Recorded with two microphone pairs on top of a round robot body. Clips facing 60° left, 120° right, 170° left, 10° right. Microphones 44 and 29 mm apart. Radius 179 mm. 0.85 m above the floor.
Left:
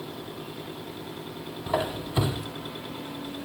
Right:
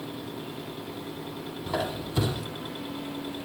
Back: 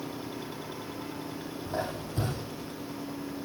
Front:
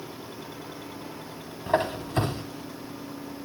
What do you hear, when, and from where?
1.7 s a squeak: 25° right, 0.7 m